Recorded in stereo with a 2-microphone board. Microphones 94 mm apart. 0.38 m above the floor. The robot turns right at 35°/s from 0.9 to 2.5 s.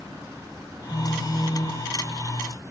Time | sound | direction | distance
0.9 | a phone buzzing | 175° right | 3 m